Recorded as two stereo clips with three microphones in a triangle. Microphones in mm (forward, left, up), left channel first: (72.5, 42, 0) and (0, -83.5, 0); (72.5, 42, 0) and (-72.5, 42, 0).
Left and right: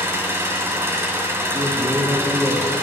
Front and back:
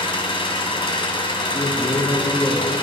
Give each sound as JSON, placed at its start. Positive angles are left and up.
{"t": 0.0, "sound": "an engine running", "azimuth_deg": -45, "distance_m": 1.4}
{"t": 1.5, "sound": "a man speaking", "azimuth_deg": -90, "distance_m": 3.0}